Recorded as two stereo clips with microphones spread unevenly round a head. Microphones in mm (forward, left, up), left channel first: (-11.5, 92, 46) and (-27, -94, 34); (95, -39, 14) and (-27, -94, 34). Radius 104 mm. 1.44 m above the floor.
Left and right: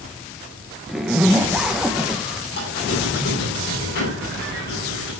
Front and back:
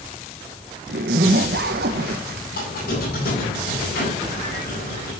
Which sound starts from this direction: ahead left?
A squeak, at 2.5 s.